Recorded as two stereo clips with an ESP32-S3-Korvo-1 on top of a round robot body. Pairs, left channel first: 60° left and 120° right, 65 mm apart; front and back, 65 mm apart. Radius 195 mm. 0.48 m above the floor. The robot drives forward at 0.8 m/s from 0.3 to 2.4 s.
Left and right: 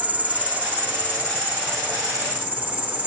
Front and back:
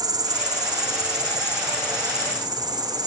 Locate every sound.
0.0 s an insect: 170° left, 1.2 m; by 3.1 s 175° left, 3 m